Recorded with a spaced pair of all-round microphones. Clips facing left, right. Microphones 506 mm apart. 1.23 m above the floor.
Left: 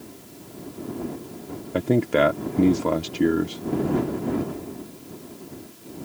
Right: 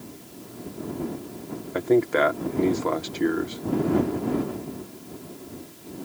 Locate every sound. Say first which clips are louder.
1.7 s a man speaking: even; 55° left (ahead or behind)